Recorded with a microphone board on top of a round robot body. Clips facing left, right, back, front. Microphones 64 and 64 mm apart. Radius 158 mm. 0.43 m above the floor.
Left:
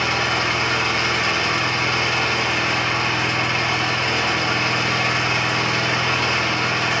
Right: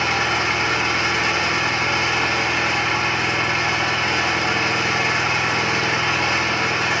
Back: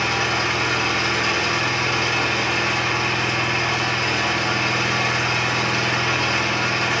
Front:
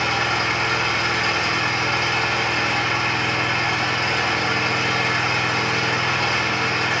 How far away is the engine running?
About 1.6 m.